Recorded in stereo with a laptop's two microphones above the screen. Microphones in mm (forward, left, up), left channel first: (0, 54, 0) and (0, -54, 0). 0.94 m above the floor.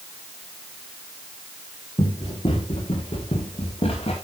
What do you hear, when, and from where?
2.0 s running footsteps: 50° left (ahead or behind), 4.5 m; by 4.1 s 60° left (ahead or behind), 5.5 m